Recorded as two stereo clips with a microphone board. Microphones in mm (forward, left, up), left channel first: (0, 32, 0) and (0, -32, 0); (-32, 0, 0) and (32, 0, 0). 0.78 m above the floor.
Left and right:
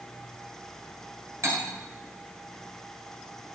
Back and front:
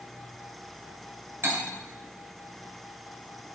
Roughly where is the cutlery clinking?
Ahead right.